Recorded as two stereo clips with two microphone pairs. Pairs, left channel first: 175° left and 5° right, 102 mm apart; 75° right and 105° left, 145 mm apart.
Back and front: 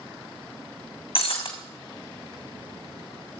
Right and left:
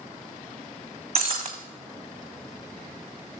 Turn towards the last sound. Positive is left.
turn(degrees=155)